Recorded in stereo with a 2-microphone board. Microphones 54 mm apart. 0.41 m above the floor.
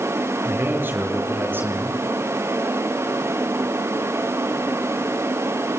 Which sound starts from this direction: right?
A man speaking, at 0.4 s.